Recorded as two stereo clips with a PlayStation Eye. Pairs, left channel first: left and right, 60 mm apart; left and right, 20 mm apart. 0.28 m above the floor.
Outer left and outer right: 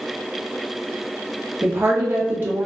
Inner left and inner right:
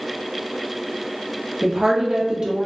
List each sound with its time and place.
1.6 s a woman speaking: 45° right (ahead or behind), 1.2 m